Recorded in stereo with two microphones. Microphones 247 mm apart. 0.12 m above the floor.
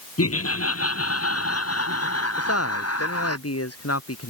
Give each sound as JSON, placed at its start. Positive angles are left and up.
{"t": 0.2, "sound": "laughter", "side_deg": 70}
{"t": 2.4, "sound": "a man speaking", "side_deg": 75}